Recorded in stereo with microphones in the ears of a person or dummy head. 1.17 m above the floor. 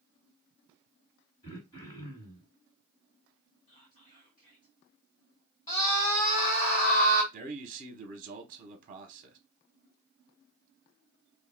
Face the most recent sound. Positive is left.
turn(degrees=-35)  # may be behind; listen again after turning